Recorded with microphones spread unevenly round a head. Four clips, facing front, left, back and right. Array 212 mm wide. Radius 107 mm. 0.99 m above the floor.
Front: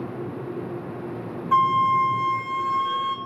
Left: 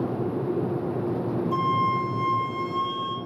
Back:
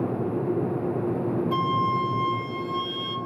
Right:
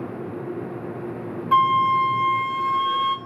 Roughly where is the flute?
Ahead right.